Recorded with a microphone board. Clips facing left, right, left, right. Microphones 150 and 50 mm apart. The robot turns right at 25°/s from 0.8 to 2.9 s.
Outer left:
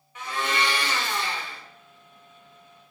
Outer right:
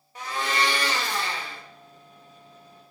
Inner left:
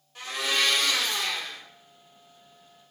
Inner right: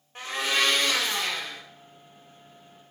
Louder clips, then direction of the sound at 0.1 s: Even, inner right 1 dB; 35° right (ahead or behind).